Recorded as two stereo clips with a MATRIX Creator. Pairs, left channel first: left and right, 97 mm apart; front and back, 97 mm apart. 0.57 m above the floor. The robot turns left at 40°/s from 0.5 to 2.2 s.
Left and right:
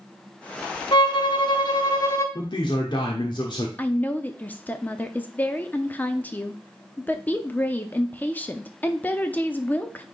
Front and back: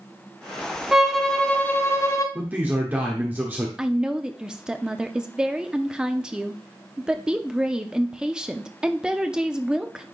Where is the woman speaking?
115° left, 0.6 m.